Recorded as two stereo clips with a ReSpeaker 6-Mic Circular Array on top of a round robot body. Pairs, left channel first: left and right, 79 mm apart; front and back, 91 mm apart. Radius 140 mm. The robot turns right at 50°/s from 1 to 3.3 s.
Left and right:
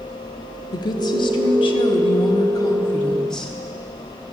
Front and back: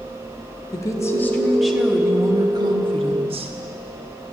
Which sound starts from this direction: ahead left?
A woman speaking, at 0.7 s.